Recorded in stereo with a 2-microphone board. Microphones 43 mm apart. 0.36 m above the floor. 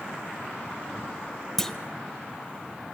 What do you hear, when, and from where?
1.6 s a clunk: 10° left (ahead or behind), 0.8 m